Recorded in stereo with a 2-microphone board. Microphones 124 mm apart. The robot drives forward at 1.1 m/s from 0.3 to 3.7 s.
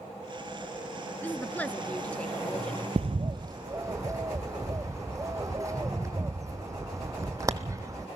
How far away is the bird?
About 0.5 m.